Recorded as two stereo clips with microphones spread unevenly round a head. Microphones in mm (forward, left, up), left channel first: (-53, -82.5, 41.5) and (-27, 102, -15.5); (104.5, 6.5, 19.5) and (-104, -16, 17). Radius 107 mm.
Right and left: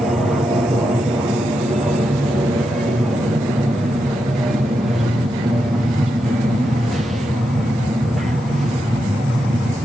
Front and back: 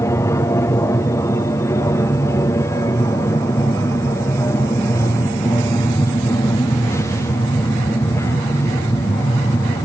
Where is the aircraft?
55° left.